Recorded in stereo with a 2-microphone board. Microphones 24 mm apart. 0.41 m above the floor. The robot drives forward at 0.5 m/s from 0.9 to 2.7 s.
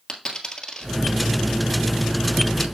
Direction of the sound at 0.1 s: 25° left (ahead or behind).